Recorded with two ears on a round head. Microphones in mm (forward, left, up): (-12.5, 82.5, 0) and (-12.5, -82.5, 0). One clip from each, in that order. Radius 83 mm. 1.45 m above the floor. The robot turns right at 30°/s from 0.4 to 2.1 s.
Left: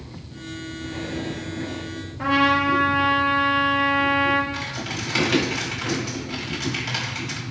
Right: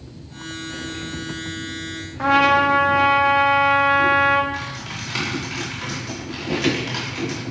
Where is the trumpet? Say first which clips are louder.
Right 4 dB; 35° right (ahead or behind), 1.8 m.